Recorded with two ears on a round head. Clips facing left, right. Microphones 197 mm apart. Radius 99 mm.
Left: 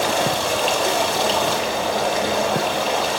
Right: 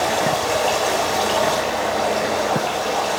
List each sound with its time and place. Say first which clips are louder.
0.0 s running water: right 1 dB; 55° left (ahead or behind), 4.5 m